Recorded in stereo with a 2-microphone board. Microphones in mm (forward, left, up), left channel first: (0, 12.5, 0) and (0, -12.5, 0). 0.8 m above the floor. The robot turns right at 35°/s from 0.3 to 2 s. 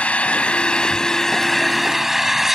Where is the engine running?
130° left; by 2.5 s 170° right.